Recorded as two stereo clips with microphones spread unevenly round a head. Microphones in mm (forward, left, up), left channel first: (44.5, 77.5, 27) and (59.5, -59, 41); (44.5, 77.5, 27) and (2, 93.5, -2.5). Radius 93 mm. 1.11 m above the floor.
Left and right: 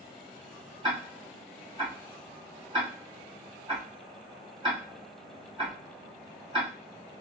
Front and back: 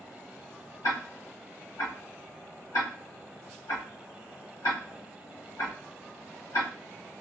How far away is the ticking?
About 1.5 m.